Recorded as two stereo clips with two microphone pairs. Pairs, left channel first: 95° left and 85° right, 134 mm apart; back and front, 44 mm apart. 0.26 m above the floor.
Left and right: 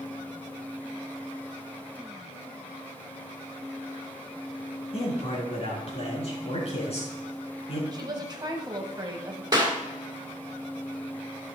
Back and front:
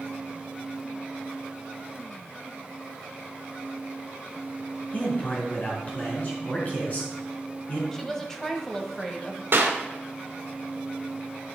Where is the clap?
25° right, 2 m.